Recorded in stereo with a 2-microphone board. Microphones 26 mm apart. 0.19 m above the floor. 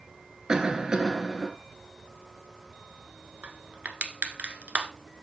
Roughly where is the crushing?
Right.